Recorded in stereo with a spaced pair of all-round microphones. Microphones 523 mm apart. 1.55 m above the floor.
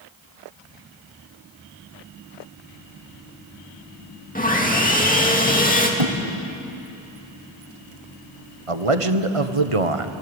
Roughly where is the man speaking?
Right.